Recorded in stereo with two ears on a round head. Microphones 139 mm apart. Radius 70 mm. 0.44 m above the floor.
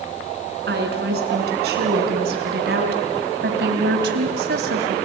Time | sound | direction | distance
0.7 | a woman speaking | 70° right (ahead or behind) | 5 m